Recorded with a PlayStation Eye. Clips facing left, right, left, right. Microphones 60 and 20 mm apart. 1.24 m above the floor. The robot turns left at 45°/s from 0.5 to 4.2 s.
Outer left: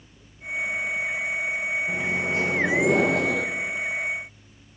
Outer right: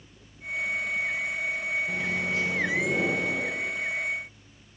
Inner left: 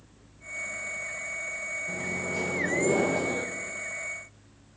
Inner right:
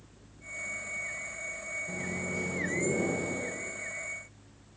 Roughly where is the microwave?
Behind.